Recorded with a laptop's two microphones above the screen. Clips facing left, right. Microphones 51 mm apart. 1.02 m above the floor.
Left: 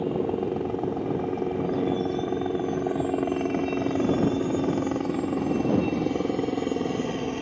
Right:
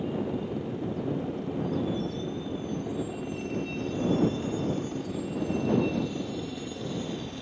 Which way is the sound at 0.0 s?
55° left (ahead or behind).